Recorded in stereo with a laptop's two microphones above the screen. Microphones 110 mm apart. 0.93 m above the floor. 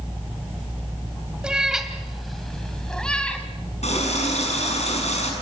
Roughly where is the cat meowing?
Centre.